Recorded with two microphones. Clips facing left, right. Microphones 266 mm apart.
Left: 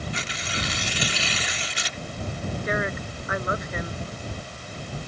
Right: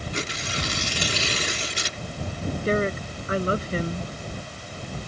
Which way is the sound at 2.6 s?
35° right (ahead or behind).